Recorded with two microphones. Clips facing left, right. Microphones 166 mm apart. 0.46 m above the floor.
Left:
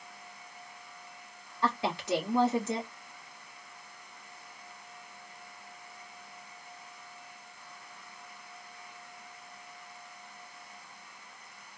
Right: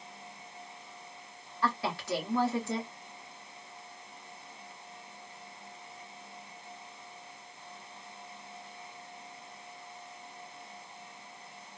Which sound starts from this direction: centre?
A woman speaking, at 1.6 s.